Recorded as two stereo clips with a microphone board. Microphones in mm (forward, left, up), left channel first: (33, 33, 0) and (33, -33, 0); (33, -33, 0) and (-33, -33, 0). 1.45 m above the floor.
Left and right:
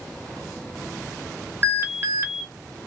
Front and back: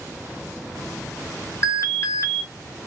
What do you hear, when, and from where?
1.6 s an alarm: 40° right, 0.6 m